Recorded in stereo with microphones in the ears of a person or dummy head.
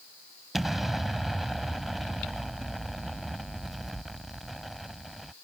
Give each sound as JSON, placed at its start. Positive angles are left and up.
{"t": 0.5, "sound": "an explosion", "side_deg": 0}